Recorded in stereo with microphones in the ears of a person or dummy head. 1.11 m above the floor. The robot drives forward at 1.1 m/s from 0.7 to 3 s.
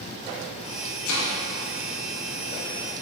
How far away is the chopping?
About 1.3 m.